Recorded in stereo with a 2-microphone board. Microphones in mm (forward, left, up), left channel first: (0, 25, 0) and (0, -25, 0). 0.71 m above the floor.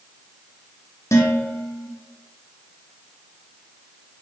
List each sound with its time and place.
1.1 s dishes clattering: 70° left (ahead or behind), 0.6 m